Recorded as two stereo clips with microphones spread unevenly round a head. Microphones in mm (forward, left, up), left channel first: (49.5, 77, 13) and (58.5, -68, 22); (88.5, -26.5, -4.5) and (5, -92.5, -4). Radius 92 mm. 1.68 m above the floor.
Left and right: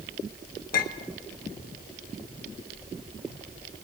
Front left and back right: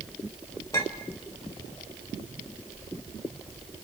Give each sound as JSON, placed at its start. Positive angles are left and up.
{"t": 0.7, "sound": "a clink", "azimuth_deg": 105, "distance_m": 1.5}